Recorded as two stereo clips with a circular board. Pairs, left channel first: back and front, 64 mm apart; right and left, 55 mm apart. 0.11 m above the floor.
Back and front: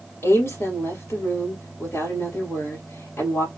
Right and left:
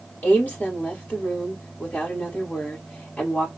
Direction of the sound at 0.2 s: 145° right.